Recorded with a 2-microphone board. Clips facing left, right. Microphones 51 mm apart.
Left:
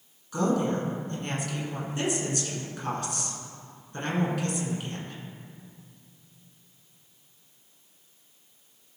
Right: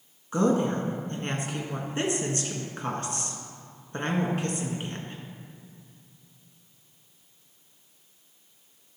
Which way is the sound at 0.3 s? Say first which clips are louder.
Right 2 dB; 35° right (ahead or behind).